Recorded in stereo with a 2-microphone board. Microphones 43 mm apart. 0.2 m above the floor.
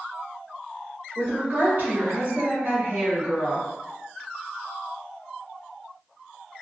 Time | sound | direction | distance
1.1 | a woman speaking | 55° right (ahead or behind) | 1.8 m